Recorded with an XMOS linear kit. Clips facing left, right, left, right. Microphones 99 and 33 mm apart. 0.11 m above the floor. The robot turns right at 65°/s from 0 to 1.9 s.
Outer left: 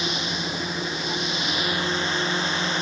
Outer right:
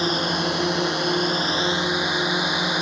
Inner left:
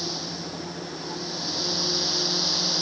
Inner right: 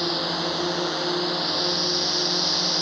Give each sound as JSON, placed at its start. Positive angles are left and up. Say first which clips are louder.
{"t": 0.0, "sound": "a drone", "louder": "outer right 6 dB, inner right 8 dB", "azimuth_deg": -140}